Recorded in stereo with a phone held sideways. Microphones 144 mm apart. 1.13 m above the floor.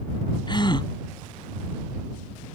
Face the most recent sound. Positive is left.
turn(degrees=30)  # may be behind; listen again after turning